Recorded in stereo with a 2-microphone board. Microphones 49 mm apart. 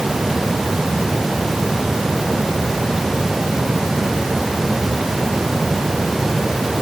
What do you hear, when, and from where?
Only background noise.